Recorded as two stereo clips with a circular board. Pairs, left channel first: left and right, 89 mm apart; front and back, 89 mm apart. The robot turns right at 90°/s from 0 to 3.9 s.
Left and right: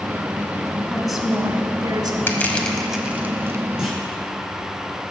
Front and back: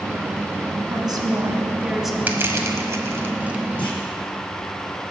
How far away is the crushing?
About 1.1 m.